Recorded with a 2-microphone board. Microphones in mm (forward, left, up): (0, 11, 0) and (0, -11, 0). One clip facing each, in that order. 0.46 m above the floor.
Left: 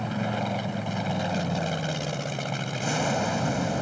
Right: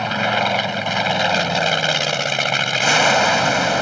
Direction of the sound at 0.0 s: 55° right (ahead or behind).